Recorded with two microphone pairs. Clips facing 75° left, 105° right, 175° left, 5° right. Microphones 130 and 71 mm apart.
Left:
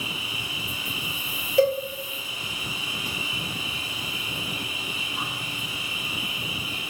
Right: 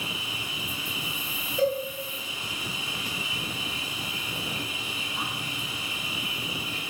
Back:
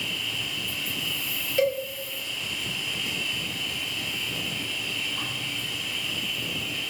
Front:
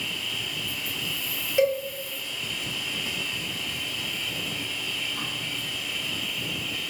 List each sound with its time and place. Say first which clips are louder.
0.0 s an insect: left 1 dB, back 1 dB; 5° left, 1.4 m
1.6 s a cowbell: left 5 dB, front 2 dB; 70° left, 0.7 m